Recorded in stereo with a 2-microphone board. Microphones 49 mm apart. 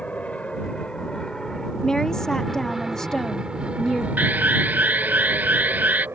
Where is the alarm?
35° right (ahead or behind).